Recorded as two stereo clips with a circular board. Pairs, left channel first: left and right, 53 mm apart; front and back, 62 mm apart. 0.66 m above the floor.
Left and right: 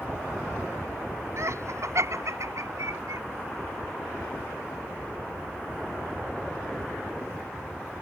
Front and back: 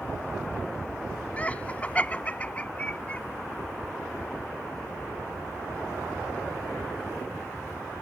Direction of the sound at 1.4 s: 65° right.